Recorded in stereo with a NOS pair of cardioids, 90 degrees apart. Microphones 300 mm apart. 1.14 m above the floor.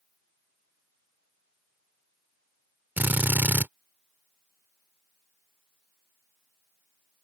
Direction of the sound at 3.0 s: 5° right.